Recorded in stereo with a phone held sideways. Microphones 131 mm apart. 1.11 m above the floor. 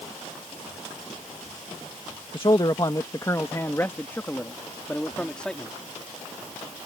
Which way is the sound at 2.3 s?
40° left (ahead or behind).